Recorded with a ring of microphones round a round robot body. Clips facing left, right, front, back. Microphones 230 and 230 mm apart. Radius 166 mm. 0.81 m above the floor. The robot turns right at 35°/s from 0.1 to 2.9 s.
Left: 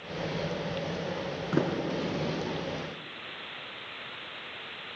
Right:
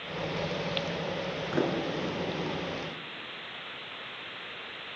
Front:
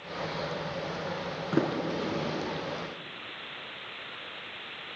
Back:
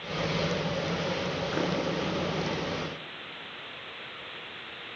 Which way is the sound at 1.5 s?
45° left.